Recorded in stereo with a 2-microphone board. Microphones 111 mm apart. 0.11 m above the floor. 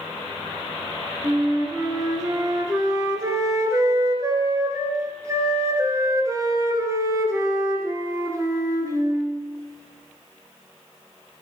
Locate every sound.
1.2 s a flute: 30° right (ahead or behind), 1.5 m